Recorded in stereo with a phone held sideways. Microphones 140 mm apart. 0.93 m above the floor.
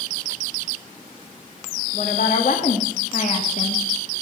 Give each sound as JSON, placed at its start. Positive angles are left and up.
{"t": 1.9, "sound": "a woman speaking", "side_deg": 70, "distance_m": 2.0}